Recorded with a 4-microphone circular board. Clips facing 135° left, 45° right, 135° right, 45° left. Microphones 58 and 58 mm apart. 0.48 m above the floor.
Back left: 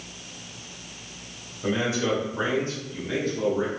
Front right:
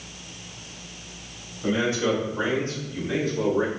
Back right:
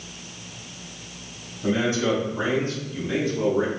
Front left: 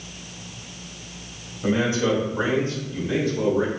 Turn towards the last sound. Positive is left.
turn(degrees=-115)